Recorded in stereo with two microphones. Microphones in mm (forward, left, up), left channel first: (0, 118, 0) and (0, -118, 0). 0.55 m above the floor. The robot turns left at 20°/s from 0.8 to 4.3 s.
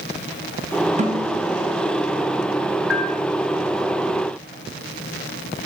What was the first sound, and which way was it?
A snare drum, 30° right (ahead or behind).